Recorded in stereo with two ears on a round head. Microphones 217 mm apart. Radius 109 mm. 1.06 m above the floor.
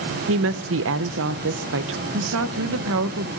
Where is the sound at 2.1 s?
55° right (ahead or behind), 0.8 m.